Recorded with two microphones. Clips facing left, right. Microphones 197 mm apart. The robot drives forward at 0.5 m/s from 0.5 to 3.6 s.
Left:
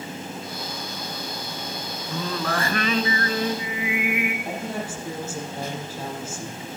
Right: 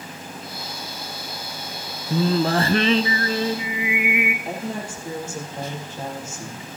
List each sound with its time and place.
2.1 s singing: 30° right (ahead or behind), 0.5 m; by 4.3 s 20° right (ahead or behind), 0.8 m
4.5 s a woman speaking: 5° left (ahead or behind), 4 m